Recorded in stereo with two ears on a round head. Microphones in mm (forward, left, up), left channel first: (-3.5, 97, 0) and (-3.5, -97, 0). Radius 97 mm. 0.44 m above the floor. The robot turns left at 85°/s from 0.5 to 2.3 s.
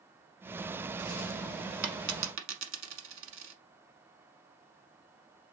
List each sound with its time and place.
1.8 s a dropped coin: 75° right (ahead or behind), 1.1 m; by 3.5 s 65° right (ahead or behind), 1.1 m